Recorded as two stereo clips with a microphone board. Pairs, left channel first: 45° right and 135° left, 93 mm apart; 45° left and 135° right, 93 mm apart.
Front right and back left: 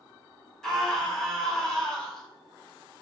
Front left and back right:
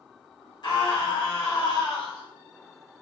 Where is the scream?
40° left, 1.8 m.